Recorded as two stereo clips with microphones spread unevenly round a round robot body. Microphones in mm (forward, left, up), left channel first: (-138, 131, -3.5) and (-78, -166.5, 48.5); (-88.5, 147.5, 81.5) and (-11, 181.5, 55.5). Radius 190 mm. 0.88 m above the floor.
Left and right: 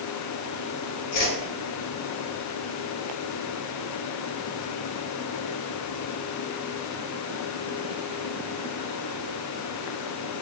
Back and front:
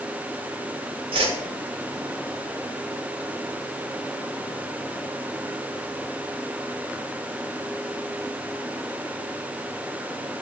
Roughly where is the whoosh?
Ahead left.